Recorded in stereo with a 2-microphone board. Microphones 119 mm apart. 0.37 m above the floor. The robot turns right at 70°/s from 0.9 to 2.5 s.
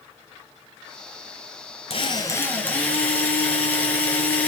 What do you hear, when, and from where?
1.9 s a drill: 125° left, 3 m; by 4.5 s 165° left, 3 m